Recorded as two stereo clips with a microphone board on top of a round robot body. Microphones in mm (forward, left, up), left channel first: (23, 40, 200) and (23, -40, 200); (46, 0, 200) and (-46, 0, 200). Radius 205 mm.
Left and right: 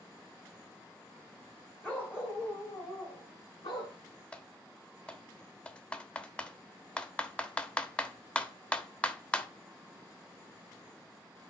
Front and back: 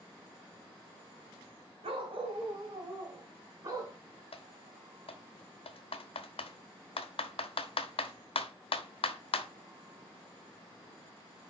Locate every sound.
1.8 s a dog barking: 165° left, 2 m; by 4.0 s 120° left, 4.5 m
4.3 s typing on a keyboard: 15° left, 1.1 m